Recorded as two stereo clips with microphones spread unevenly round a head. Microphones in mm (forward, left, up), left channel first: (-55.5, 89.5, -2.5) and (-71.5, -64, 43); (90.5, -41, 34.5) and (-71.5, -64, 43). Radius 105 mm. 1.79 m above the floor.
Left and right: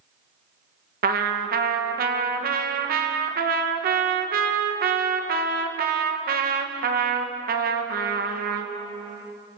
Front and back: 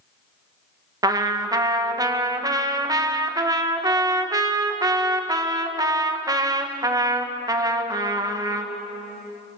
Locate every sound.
1.0 s a trumpet: 105° right, 1.9 m